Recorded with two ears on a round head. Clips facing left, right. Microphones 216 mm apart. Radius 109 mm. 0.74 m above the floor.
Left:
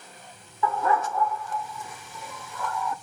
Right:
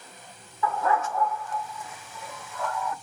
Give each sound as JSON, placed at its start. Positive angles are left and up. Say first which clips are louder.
{"t": 0.6, "sound": "a dog barking", "louder": "left 1 dB", "side_deg": 80, "distance_m": 1.1}